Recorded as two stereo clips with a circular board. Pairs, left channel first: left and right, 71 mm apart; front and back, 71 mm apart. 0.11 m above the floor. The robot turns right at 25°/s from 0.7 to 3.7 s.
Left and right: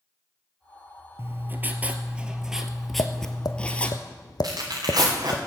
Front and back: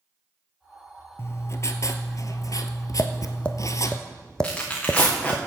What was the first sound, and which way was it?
Writing, 40° right.